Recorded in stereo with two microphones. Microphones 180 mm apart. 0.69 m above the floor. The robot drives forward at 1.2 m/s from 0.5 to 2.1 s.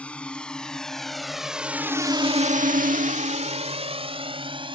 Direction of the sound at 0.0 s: 5° left (ahead or behind).